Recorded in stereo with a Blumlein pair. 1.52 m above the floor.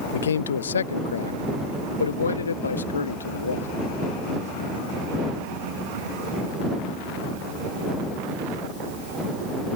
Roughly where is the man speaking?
Ahead left.